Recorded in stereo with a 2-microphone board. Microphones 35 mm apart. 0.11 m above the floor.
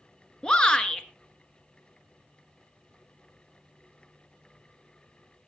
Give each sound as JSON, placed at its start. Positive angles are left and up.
{"t": 0.4, "sound": "a shout", "side_deg": 25, "distance_m": 1.3}